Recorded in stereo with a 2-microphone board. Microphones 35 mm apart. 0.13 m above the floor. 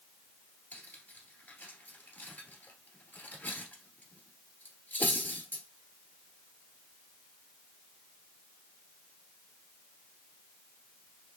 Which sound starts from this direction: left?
Cutlery clinking, at 0.7 s.